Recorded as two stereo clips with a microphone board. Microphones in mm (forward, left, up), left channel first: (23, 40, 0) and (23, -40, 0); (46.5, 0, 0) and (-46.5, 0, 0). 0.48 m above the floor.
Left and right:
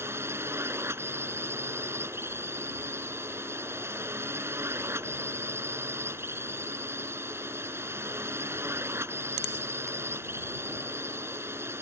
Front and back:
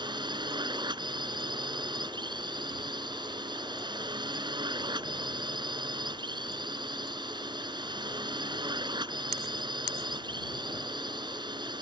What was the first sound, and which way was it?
A drone, 145° right.